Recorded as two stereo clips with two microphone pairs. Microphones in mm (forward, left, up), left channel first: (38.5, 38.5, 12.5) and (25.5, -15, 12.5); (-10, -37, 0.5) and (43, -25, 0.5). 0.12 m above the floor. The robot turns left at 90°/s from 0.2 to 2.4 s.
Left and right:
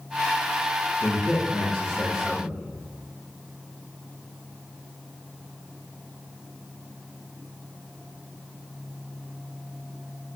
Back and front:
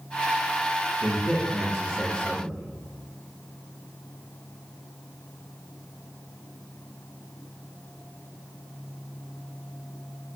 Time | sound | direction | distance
1.0 | a man speaking | 110° right | 1.8 m